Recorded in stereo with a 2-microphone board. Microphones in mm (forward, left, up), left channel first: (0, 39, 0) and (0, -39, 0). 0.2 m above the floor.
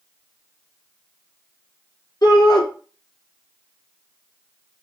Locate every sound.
2.2 s a shout: 55° left (ahead or behind), 2.5 m